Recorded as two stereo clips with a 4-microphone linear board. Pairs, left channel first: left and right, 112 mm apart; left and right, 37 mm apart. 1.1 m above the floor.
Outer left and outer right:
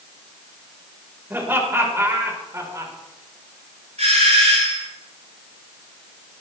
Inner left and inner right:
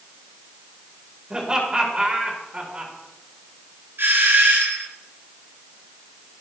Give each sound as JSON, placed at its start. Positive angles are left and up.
{"t": 1.3, "sound": "laughter", "side_deg": -20, "distance_m": 4.5}
{"t": 4.0, "sound": "a doorbell", "side_deg": -75, "distance_m": 7.0}